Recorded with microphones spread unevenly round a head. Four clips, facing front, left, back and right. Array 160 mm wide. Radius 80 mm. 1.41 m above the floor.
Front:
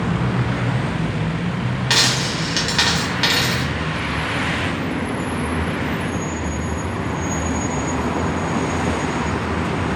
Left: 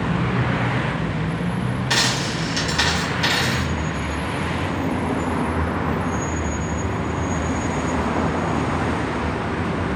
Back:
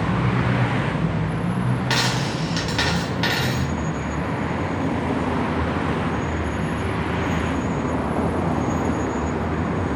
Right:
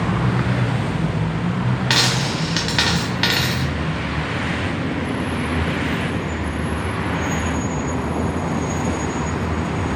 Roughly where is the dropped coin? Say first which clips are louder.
Even, front 1 dB; right.